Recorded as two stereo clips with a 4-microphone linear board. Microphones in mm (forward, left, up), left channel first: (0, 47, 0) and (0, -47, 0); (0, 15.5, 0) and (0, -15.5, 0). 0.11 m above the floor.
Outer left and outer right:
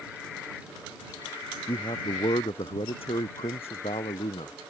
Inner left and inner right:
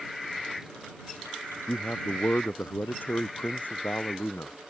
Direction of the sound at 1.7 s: 60° left (ahead or behind).